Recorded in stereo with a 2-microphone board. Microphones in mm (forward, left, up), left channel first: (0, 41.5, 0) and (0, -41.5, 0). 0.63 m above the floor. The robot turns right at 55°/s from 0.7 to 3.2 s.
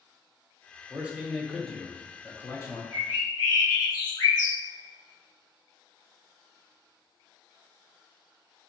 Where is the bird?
60° left (ahead or behind), 1.5 m; by 4.6 s 50° left (ahead or behind), 1.5 m.